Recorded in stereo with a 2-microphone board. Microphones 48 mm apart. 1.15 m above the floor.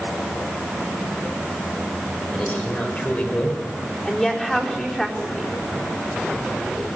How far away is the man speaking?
About 4 m.